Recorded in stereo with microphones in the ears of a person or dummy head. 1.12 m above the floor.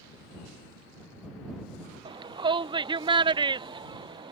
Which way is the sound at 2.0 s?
20° right (ahead or behind).